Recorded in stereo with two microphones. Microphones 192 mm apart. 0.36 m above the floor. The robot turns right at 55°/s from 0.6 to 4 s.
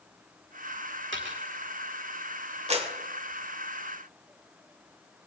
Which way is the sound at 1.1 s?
75° right (ahead or behind).